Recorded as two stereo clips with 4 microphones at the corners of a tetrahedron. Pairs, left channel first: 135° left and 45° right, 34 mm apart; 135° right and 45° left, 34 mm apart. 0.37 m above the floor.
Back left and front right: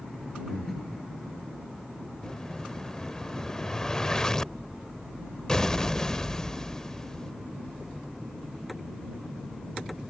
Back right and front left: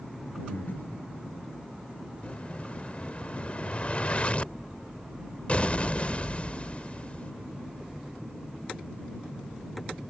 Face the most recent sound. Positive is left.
turn(degrees=-160)